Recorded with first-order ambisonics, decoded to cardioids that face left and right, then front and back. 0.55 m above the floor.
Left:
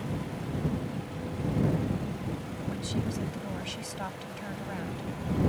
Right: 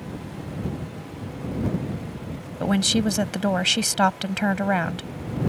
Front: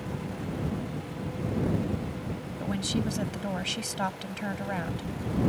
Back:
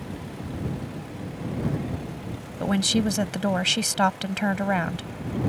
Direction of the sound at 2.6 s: 120° right.